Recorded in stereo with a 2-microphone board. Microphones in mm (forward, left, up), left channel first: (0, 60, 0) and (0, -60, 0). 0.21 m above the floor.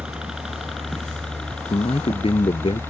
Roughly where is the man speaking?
Left.